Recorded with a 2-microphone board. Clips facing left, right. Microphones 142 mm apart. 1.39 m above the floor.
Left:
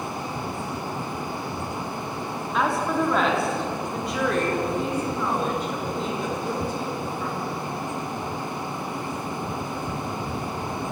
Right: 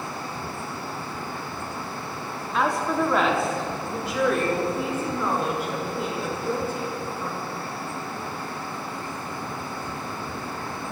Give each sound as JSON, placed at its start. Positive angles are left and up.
{"t": 2.5, "sound": "a woman speaking", "side_deg": 0, "distance_m": 3.5}